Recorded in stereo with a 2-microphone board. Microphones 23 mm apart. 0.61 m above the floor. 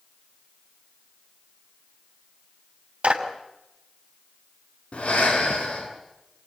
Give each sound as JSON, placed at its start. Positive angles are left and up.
{"t": 3.0, "sound": "a clap", "side_deg": -65, "distance_m": 3.0}
{"t": 4.9, "sound": "breathing", "side_deg": 65, "distance_m": 6.5}